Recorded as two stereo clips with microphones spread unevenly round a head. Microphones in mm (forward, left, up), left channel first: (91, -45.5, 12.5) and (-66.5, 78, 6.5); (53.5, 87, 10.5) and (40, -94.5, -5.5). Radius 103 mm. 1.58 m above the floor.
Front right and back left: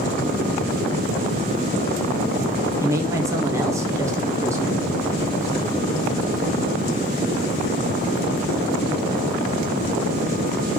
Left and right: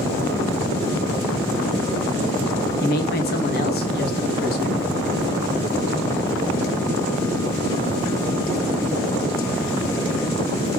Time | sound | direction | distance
2.8 | a woman speaking | 65° left | 0.8 m